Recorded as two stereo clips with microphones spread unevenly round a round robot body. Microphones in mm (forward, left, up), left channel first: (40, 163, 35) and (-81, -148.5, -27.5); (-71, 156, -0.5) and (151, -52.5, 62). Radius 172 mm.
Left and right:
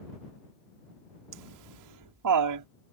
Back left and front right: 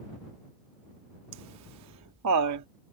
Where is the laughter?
85° right.